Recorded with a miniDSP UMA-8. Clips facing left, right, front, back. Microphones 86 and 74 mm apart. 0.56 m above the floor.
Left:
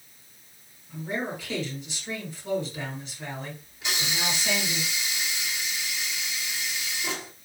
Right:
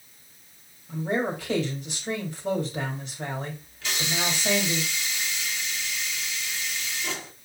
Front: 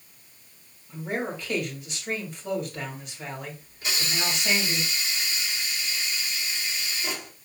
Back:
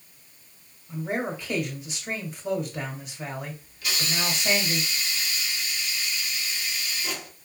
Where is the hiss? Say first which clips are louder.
Right 1 dB, even; 30° left, 1.4 m.